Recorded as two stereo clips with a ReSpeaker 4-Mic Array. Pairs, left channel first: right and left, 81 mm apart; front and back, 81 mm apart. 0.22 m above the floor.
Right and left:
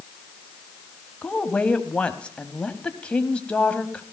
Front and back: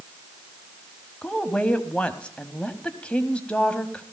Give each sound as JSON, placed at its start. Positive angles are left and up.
{"t": 1.2, "sound": "a woman speaking", "azimuth_deg": -45, "distance_m": 1.0}